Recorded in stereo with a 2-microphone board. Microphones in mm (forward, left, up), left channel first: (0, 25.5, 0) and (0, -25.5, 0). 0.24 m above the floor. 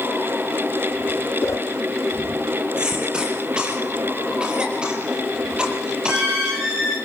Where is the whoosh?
70° left (ahead or behind), 1.7 m.